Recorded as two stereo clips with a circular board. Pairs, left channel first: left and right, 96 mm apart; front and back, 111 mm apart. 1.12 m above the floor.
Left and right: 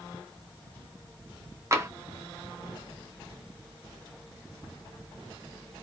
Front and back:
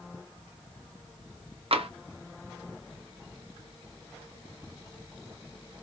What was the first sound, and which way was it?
Tapping, 150° right.